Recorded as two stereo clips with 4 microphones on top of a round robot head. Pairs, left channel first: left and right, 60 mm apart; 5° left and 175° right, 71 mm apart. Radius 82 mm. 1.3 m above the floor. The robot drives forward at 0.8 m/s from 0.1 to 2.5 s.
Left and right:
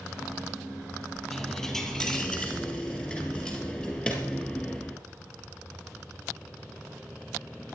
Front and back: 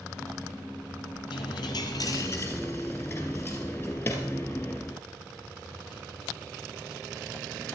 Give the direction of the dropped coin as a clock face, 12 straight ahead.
12 o'clock.